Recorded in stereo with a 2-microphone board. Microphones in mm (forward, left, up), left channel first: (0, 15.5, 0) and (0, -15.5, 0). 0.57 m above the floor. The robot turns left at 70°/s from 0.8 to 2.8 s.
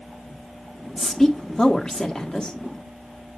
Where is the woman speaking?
175° left, 1.4 m; by 2.6 s 65° left, 1.4 m.